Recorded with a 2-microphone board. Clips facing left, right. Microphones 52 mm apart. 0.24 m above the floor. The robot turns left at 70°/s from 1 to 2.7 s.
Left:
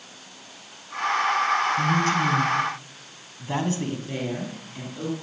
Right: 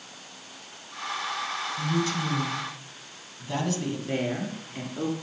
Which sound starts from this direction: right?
A woman speaking, at 4.1 s.